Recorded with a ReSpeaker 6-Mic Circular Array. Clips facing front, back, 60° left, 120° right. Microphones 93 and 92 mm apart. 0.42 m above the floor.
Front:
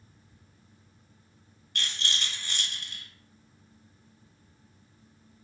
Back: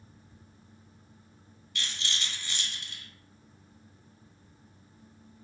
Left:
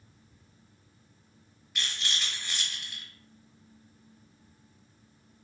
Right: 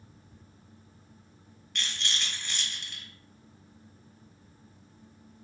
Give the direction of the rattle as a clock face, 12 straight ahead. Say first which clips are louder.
Front 2 dB, even; 1 o'clock.